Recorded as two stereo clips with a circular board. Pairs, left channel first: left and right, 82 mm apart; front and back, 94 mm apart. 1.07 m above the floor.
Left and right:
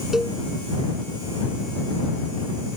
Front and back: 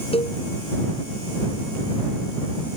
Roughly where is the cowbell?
Ahead.